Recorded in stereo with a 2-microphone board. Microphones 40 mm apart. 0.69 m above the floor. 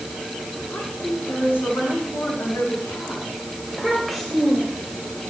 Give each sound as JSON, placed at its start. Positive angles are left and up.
{"t": 0.7, "sound": "a woman speaking", "side_deg": 85, "distance_m": 7.0}
{"t": 3.7, "sound": "a child speaking", "side_deg": 0, "distance_m": 2.5}